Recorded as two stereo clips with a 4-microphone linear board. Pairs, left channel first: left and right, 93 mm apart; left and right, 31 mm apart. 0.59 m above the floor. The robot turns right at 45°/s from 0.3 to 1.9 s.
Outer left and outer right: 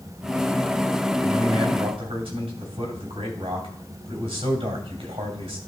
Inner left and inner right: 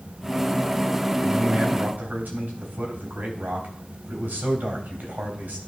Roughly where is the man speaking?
Behind right.